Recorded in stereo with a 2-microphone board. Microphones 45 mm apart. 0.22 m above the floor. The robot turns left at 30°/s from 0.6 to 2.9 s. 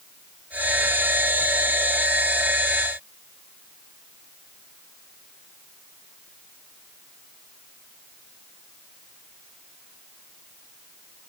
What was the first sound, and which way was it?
Only background noise.